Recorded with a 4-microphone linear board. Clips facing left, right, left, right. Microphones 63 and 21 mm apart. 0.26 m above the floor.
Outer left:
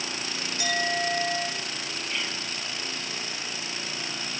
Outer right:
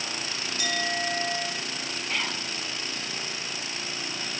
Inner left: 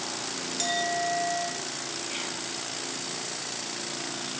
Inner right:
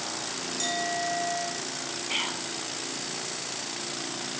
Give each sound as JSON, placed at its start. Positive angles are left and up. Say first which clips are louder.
{"t": 0.6, "sound": "a clink", "louder": "outer left 2 dB, inner left 2 dB", "side_deg": 30, "distance_m": 9.0}
{"t": 2.1, "sound": "whispering", "louder": "outer right 3 dB, inner right 8 dB", "side_deg": -55, "distance_m": 2.5}